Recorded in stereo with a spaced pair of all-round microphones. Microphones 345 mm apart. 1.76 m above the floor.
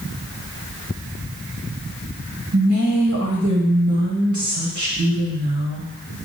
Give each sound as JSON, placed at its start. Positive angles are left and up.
{"t": 2.5, "sound": "a woman speaking", "side_deg": -65, "distance_m": 1.7}